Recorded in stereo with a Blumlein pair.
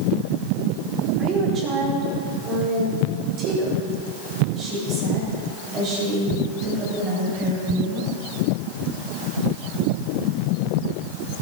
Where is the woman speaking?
30° right, 4 m; by 8.1 s 35° right, 9.5 m.